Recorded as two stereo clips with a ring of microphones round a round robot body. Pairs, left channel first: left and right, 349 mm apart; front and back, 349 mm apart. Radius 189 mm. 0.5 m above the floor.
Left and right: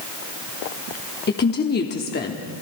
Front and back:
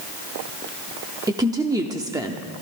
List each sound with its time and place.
1.3 s a woman speaking: 110° left, 0.8 m